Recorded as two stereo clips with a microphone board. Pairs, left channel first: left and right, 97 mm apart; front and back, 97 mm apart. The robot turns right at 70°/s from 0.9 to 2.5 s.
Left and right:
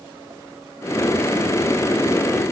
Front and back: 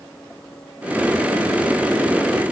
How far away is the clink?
No clink in this recording.